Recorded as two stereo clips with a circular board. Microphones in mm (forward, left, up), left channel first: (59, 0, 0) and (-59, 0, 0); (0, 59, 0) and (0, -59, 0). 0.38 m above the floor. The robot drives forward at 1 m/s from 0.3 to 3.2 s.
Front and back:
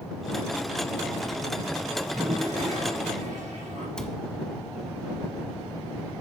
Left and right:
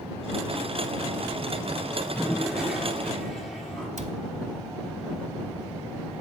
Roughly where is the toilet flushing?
Behind.